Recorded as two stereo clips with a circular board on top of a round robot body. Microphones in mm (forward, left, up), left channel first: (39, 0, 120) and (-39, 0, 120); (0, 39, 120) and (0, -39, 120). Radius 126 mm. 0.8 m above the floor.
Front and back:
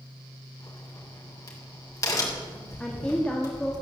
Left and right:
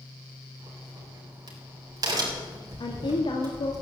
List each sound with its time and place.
0.6 s a crack: 50° right, 4 m
2.8 s a woman speaking: 80° left, 1.8 m